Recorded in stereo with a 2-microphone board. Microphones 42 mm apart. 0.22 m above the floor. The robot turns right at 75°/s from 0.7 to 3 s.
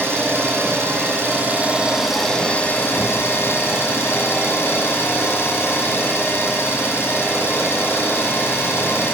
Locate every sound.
0.0 s an engine running: 105° right, 7.5 m; by 9.1 s 70° left, 7.5 m